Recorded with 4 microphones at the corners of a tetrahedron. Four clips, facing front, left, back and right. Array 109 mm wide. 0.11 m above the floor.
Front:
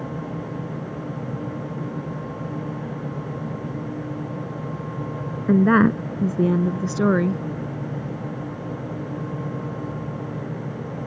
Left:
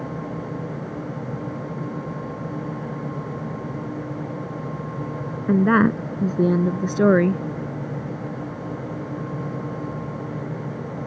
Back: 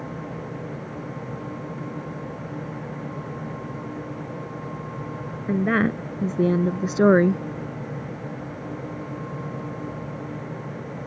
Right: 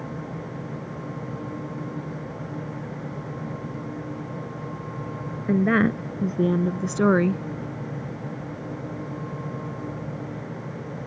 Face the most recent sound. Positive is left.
turn(degrees=165)